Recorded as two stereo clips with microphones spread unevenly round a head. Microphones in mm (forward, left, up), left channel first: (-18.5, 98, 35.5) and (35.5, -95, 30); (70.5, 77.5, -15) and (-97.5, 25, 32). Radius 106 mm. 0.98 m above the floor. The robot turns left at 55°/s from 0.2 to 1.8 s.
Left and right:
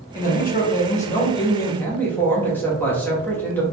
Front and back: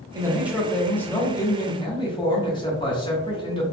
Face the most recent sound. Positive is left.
turn(degrees=25)